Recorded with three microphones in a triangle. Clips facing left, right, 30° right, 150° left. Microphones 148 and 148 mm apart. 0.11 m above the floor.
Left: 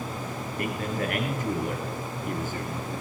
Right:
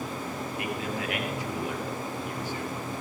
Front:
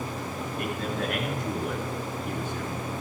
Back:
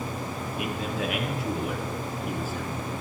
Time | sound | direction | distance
0.6 | a man speaking | 65° left | 2.5 m